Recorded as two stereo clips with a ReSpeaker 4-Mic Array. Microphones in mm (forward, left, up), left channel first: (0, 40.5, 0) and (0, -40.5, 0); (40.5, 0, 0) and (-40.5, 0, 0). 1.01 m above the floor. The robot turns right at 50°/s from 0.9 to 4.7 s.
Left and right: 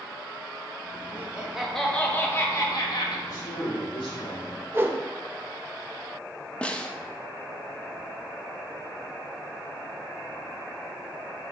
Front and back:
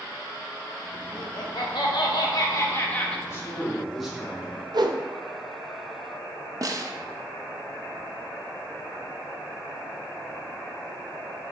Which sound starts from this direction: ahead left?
A man speaking, at 3.3 s.